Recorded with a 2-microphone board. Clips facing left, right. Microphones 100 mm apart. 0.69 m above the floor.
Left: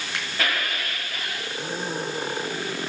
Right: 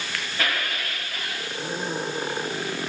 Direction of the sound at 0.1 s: 20° left (ahead or behind).